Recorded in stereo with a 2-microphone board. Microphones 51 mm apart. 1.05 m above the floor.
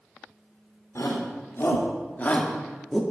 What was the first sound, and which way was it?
A shout, 65° left (ahead or behind).